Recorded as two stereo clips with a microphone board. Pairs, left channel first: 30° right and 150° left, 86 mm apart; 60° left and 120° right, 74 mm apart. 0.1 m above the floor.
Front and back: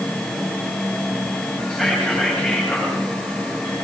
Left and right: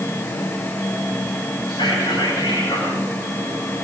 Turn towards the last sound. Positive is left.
turn(degrees=70)